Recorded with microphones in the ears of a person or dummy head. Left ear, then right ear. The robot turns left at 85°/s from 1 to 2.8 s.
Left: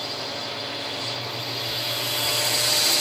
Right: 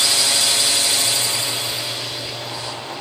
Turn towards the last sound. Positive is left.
turn(degrees=70)  # may be behind; listen again after turning